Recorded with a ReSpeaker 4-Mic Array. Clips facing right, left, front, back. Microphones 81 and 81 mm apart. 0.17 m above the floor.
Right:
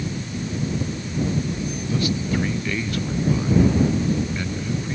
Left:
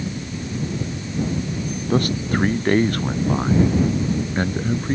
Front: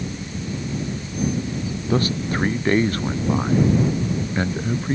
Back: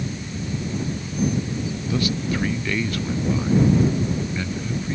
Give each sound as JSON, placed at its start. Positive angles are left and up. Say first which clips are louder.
{"t": 1.9, "sound": "a man speaking", "louder": "left 4 dB, front 3 dB", "azimuth_deg": 50}